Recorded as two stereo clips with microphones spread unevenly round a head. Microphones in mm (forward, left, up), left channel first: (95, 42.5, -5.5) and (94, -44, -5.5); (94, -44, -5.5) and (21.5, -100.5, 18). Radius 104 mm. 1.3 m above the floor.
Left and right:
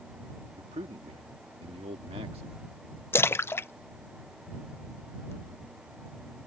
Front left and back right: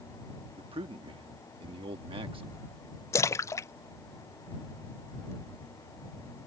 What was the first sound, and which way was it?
A man speaking, 125° right.